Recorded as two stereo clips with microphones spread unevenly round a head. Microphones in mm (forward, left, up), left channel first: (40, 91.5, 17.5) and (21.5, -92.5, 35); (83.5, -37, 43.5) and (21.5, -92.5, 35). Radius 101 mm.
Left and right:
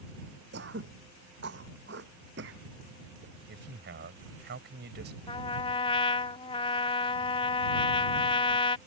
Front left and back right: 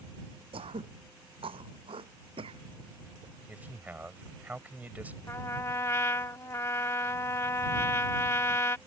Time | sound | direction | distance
0.5 | throat clearing | 135° right | ?
3.5 | a man speaking | 65° right | ?
5.3 | a trumpet | 35° left | ?